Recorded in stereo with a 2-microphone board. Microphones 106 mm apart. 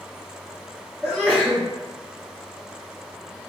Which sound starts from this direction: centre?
A sneeze, at 1.0 s.